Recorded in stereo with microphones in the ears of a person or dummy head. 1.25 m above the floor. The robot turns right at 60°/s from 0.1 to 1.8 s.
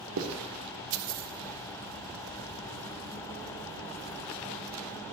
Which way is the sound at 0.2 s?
65° right (ahead or behind).